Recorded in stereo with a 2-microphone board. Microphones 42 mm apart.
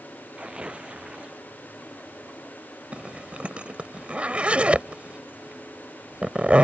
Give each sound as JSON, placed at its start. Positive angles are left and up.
{"t": 0.3, "sound": "tearing paper", "side_deg": -25}
{"t": 2.9, "sound": "a zipper", "side_deg": -30}